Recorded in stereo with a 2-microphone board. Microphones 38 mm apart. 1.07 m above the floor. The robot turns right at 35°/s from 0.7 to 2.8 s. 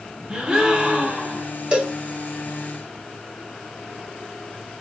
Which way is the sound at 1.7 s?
35° right (ahead or behind).